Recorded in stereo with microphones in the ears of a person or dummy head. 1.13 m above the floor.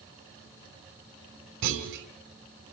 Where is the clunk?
65° right (ahead or behind), 3 m.